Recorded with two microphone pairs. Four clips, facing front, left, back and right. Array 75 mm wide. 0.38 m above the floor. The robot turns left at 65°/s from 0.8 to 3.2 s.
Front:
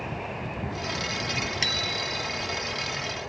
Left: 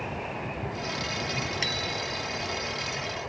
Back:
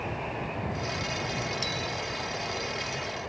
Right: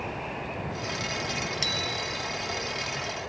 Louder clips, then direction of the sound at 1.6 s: Even, front 2 dB; 30° left.